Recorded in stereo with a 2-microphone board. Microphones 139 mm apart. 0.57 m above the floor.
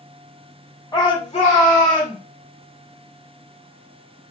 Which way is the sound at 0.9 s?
25° left (ahead or behind).